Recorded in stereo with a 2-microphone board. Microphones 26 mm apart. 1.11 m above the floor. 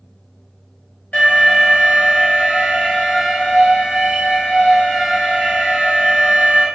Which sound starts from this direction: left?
An alarm, at 1.1 s.